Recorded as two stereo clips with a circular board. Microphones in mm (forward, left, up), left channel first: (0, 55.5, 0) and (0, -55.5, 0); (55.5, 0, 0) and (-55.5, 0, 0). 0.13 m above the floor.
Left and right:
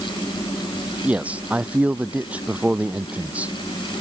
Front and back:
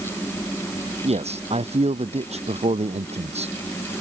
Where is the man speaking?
165° right.